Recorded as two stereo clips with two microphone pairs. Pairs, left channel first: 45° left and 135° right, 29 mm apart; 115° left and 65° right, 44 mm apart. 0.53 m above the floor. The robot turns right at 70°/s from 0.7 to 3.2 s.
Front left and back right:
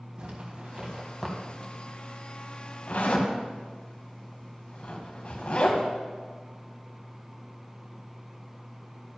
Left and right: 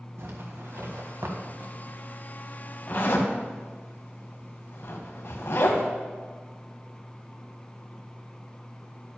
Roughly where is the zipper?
Right.